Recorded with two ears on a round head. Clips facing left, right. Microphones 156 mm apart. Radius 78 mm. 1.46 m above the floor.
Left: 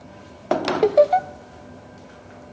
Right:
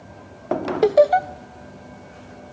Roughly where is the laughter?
Centre.